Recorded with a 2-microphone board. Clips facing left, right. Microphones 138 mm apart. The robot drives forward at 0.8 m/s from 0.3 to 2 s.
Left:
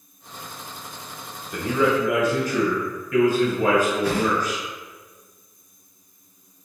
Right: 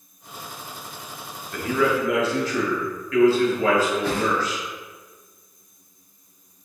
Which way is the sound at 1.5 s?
15° left (ahead or behind).